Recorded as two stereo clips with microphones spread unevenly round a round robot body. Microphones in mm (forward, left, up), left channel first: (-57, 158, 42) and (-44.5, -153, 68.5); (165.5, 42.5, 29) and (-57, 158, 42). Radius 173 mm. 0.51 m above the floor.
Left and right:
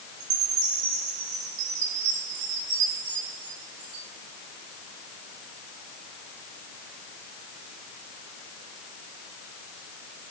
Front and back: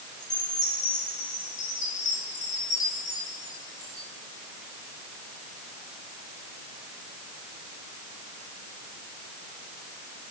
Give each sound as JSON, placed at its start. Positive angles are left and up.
{"t": 0.2, "sound": "a chime", "azimuth_deg": -95, "distance_m": 8.5}